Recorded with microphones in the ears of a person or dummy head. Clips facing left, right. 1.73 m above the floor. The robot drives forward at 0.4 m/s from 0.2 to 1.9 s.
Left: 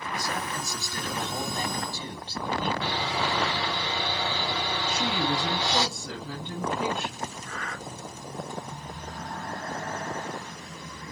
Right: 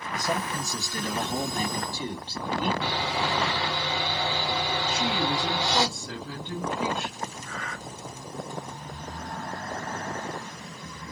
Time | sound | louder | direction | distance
0.1 | a man speaking | right 4 dB | 15° right (ahead or behind) | 0.8 m
2.8 | sawing | right 1 dB | 10° left (ahead or behind) | 1.9 m
4.9 | a woman speaking | left 1 dB | 45° left (ahead or behind) | 1.6 m
7.4 | breathing | even | 45° left (ahead or behind) | 1.9 m